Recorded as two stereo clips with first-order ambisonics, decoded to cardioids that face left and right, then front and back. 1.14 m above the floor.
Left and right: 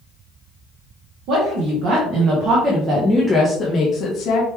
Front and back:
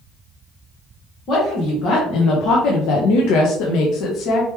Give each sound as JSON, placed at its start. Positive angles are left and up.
{"t": 1.3, "sound": "a woman speaking", "azimuth_deg": -55, "distance_m": 1.7}